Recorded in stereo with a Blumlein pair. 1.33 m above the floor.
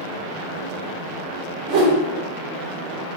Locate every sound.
1.7 s a whoosh: 40° right, 1.1 m